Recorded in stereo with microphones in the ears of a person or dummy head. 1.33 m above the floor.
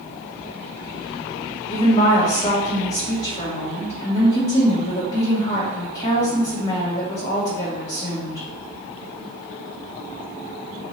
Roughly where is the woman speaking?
Centre.